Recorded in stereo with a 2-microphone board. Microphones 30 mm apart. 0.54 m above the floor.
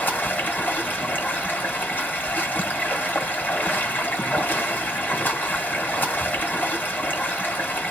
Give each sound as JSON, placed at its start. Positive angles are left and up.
{"t": 0.0, "sound": "running water", "side_deg": 80, "distance_m": 1.5}